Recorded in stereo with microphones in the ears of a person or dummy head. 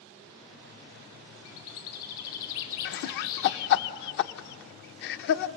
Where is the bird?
75° left (ahead or behind), 4 m.